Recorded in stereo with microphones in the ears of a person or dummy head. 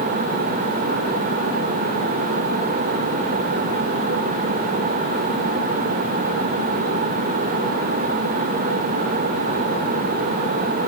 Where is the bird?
No bird in this recording.